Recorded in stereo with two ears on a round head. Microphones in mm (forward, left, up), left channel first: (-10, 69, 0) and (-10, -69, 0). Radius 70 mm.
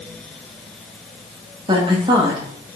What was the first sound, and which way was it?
A woman speaking, 30° right (ahead or behind).